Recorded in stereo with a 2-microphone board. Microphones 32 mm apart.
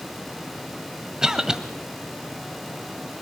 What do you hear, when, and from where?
1.2 s a cough: 20° right (ahead or behind), 1.5 m